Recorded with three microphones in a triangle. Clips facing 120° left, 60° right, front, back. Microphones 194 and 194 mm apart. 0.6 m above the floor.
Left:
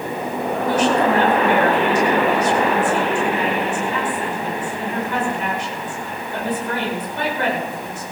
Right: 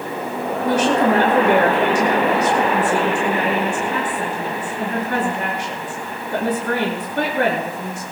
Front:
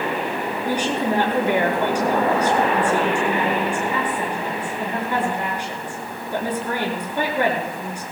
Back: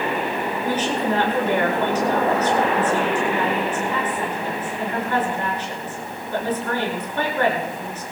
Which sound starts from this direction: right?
A woman speaking, at 0.6 s.